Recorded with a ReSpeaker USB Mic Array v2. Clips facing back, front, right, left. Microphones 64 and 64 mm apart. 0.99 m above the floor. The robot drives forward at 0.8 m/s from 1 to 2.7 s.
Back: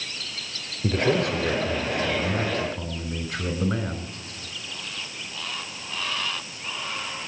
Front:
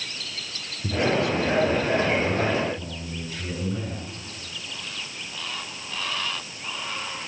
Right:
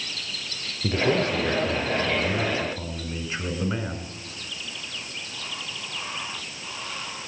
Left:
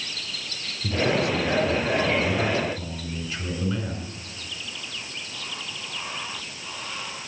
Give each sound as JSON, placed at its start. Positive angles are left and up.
{"t": 0.8, "sound": "a man speaking", "azimuth_deg": -140, "distance_m": 3.0}